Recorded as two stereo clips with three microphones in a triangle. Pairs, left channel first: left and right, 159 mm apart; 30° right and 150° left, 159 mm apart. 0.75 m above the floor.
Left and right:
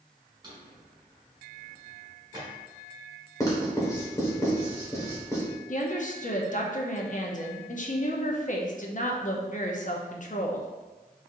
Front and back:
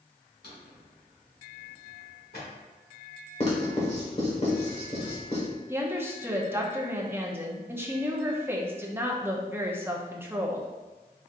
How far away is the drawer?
About 1.5 m.